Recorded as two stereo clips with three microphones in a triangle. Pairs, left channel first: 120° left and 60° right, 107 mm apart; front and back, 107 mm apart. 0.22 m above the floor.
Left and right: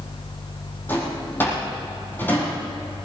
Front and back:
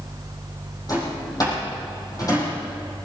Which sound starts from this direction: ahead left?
A drawer, at 0.9 s.